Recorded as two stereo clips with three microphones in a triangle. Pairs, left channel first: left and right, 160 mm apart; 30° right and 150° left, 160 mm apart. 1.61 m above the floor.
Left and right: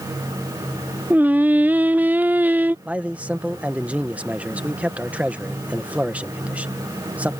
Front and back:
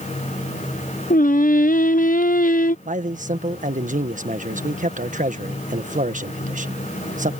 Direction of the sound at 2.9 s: 170° right.